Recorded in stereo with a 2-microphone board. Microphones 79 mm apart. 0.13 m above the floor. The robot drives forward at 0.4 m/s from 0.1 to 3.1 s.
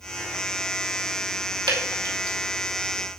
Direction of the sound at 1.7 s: 70° right (ahead or behind).